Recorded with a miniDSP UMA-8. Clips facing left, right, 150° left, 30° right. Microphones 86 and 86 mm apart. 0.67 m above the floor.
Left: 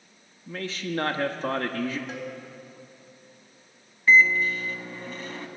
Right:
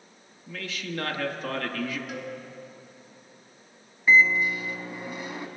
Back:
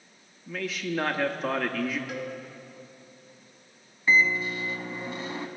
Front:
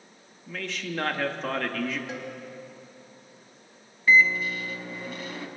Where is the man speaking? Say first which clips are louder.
Left 4 dB, back 3 dB; 65° left, 0.7 m.